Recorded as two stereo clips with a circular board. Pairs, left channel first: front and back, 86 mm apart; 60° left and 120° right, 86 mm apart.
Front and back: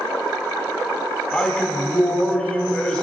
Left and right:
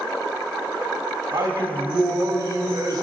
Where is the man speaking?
80° right, 1.7 m.